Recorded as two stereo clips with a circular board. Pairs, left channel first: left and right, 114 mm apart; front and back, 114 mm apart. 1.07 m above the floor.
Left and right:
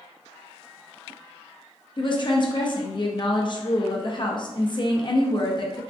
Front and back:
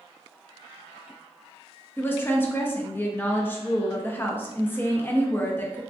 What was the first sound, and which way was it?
A woman speaking, 65° left.